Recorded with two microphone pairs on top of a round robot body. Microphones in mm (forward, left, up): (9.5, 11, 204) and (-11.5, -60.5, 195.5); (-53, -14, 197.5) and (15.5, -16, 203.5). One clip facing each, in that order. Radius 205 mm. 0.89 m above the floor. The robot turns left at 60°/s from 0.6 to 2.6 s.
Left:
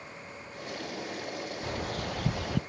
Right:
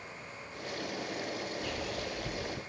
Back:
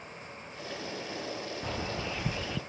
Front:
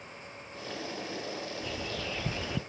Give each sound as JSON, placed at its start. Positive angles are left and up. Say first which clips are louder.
{"t": 1.6, "sound": "a bird", "louder": "left 3 dB, back 4 dB", "azimuth_deg": 140, "distance_m": 0.7}